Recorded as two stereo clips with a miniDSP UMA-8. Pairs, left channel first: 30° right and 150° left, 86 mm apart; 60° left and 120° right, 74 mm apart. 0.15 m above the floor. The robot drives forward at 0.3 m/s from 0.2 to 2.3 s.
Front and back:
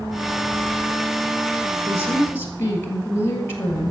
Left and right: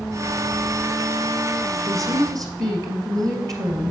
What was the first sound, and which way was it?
A woman speaking, 85° right.